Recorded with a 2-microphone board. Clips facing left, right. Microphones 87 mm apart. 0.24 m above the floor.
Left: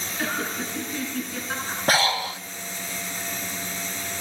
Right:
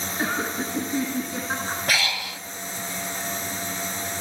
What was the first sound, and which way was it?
Laughter, 20° right (ahead or behind).